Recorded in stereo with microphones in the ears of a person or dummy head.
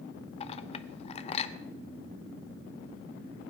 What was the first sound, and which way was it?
A clink, 35° left (ahead or behind).